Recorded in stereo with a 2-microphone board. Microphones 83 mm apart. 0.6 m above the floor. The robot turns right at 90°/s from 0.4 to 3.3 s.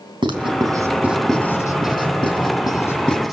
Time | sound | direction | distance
0.2 | writing | 75° right (ahead or behind) | 4 m